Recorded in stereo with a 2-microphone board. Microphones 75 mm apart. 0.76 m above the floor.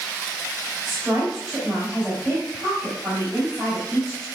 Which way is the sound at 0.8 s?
5° right (ahead or behind).